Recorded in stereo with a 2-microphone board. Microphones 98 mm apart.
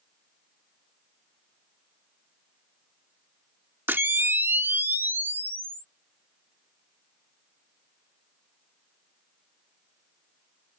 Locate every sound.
3.9 s a camera shutter: 20° right (ahead or behind)